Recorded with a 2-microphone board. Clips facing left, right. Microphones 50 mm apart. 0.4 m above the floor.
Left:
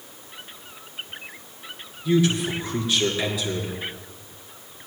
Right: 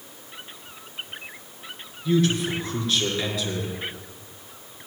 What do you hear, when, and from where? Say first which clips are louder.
2.0 s a man speaking: left 1 dB; 5° left (ahead or behind), 5 m